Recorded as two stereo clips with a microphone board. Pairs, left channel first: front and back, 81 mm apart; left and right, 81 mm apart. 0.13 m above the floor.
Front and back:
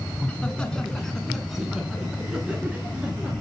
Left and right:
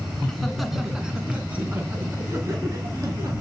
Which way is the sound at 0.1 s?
25° left.